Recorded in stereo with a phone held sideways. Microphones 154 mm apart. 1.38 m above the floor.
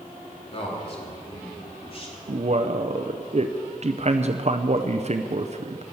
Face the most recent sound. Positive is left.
turn(degrees=-50)  # may be behind; listen again after turning